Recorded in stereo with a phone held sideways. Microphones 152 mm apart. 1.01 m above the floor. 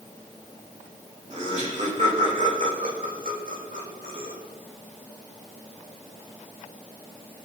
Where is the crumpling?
No crumpling in this recording.